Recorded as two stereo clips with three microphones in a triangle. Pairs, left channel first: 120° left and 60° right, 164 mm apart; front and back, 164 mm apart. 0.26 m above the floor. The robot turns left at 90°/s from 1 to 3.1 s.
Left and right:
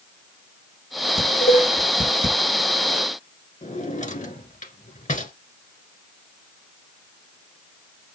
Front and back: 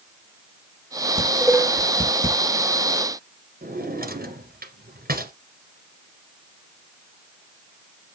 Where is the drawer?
160° left, 1.6 m.